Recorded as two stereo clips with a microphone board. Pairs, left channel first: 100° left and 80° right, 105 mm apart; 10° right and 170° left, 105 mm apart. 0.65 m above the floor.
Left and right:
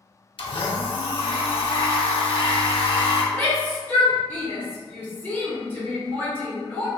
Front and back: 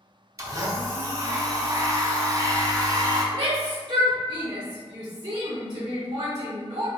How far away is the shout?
About 0.8 m.